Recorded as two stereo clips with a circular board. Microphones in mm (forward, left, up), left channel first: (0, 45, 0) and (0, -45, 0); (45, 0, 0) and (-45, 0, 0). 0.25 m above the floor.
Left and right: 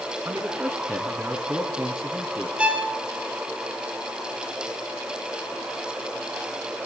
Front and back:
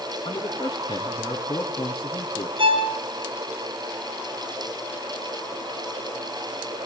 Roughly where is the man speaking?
Ahead right.